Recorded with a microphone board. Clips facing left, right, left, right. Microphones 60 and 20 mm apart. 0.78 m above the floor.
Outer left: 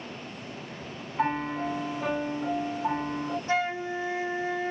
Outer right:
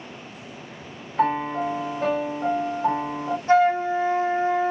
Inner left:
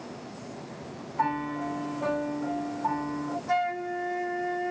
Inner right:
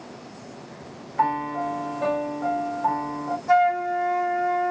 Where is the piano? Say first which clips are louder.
Outer right 6 dB, inner right 5 dB; 60° right (ahead or behind), 1.8 m.